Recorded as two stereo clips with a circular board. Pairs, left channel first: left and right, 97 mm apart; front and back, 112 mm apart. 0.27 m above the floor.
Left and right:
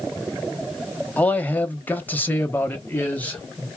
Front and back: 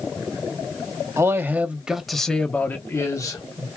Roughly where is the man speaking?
Behind left.